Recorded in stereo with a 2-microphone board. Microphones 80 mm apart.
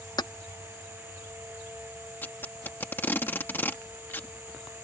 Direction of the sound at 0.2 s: 60° left (ahead or behind).